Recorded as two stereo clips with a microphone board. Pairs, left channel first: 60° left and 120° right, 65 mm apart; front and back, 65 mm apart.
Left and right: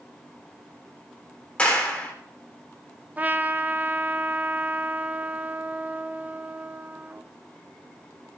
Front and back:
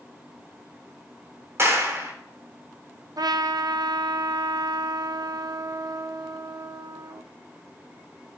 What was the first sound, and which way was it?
A clap, 130° left.